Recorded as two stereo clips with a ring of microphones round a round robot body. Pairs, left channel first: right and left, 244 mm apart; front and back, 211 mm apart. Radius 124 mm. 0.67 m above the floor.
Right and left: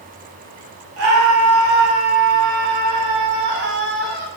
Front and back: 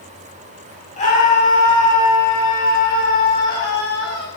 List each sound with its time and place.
1.0 s a scream: 55° left, 6 m; by 4.3 s 40° left, 5.5 m